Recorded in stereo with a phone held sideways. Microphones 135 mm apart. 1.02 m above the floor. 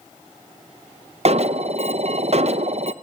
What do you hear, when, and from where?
1.2 s an alarm: 50° right (ahead or behind), 0.6 m